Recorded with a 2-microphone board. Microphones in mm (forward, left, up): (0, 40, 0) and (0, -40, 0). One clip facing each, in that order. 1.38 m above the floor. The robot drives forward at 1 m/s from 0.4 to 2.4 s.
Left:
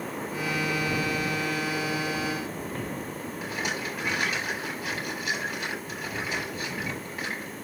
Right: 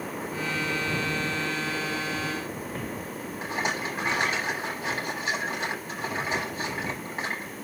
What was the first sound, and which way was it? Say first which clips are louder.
A rattle: right 3 dB; 30° right (ahead or behind).